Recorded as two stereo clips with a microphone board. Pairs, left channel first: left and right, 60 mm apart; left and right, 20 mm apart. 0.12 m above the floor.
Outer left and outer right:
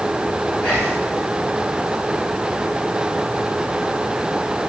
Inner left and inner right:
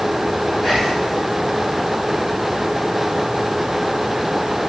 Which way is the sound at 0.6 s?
15° left (ahead or behind).